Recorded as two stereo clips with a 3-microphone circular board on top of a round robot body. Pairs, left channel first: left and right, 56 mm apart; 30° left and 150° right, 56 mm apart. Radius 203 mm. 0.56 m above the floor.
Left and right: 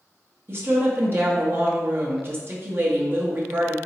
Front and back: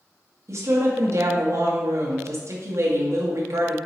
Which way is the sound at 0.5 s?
130° right.